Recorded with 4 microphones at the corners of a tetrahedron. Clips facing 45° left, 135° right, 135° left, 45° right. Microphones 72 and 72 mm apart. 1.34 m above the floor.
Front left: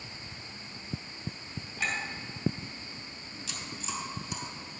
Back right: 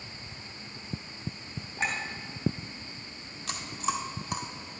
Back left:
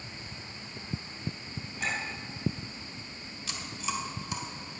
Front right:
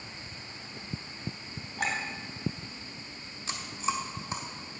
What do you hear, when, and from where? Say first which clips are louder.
1.8 s a clink: back right 2 dB, front right 2 dB; 70° right, 3 m
3.5 s chewing: back right 8 dB, front right 4 dB; 105° right, 1.6 m